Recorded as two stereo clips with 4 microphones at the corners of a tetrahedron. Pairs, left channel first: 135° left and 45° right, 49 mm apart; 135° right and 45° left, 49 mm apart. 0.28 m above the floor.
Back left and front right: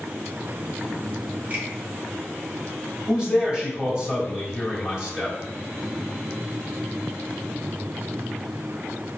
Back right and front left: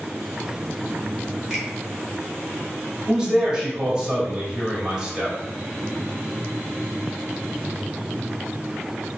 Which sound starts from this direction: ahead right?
A finger snap, at 1.5 s.